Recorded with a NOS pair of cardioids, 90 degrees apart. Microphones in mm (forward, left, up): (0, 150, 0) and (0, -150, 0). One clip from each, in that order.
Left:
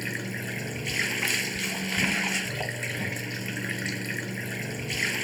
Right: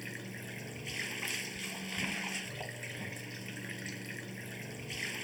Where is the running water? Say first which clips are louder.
Left 11 dB; 70° left.